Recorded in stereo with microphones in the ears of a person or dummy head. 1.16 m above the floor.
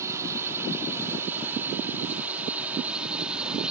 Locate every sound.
0.0 s a drone: 10° right (ahead or behind); by 3.7 s centre (ahead or behind)